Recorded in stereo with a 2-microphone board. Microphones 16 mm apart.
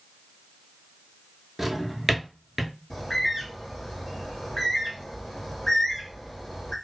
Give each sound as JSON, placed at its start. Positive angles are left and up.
{"t": 1.6, "sound": "a drawer", "side_deg": -15, "distance_m": 0.5}
{"t": 2.9, "sound": "a bird", "side_deg": 30, "distance_m": 1.6}